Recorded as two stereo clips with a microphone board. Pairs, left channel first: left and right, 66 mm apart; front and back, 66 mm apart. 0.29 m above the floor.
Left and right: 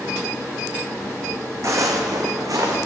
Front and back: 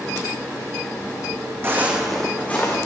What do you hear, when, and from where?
1.6 s footsteps: 125° right, 0.9 m; by 2.8 s 55° right, 1.3 m